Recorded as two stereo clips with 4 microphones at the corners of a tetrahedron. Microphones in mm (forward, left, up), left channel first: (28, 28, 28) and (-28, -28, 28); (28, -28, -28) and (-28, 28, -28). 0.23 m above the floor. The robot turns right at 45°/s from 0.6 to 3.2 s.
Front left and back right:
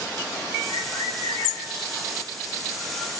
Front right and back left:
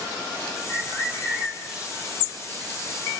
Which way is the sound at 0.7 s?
5° left.